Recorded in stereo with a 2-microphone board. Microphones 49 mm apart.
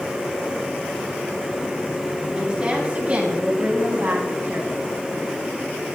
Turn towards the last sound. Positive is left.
turn(degrees=-50)  # may be behind; listen again after turning